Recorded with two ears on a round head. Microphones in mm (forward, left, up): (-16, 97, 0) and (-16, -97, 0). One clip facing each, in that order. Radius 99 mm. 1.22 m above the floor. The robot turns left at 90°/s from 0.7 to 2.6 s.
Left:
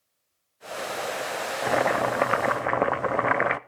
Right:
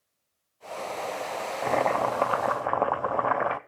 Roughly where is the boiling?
Centre.